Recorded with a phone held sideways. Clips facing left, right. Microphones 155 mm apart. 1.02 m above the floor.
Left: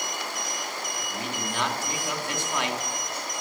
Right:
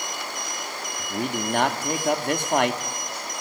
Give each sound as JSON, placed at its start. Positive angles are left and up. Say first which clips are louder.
{"t": 1.0, "sound": "a man speaking", "louder": "right 9 dB", "side_deg": -55, "distance_m": 2.5}